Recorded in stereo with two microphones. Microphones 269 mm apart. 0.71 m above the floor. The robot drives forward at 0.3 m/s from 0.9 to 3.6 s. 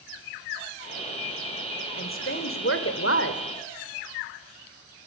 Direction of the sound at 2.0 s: 50° left (ahead or behind).